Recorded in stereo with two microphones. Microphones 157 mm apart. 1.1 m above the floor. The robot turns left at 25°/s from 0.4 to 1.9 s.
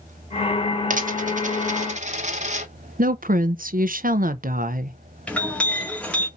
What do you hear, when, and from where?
0.9 s a dropped coin: 60° right (ahead or behind), 1.0 m; by 2.7 s 50° right (ahead or behind), 1.0 m
3.0 s a woman speaking: 65° right (ahead or behind), 0.5 m
5.3 s a clink: 5° left (ahead or behind), 1.7 m